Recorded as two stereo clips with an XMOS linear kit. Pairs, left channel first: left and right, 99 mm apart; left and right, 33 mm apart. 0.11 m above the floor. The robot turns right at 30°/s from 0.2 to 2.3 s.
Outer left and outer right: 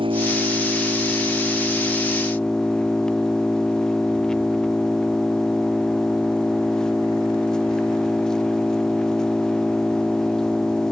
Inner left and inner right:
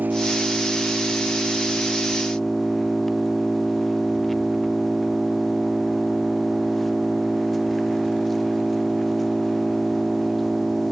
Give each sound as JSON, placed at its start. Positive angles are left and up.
{"t": 0.0, "sound": "an engine running", "azimuth_deg": -55}